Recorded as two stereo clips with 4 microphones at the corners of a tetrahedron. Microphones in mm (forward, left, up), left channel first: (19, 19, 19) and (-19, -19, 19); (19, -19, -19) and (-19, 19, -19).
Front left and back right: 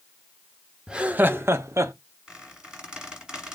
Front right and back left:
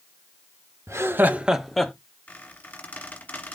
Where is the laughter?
150° left, 0.6 m; by 1.9 s 125° right, 0.7 m.